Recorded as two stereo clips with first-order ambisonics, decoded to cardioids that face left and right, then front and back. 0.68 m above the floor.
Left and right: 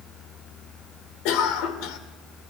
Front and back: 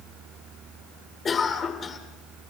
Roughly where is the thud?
No thud in this recording.